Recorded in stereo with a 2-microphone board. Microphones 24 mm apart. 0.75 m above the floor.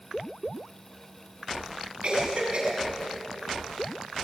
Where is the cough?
55° right (ahead or behind), 7 m.